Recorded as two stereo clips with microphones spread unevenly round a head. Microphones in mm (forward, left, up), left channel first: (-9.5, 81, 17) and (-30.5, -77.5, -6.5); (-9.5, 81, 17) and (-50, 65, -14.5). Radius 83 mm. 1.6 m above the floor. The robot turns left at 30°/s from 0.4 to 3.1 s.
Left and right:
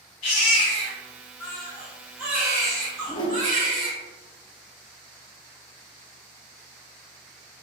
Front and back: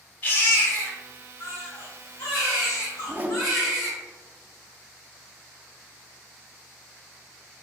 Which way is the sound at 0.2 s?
45° left.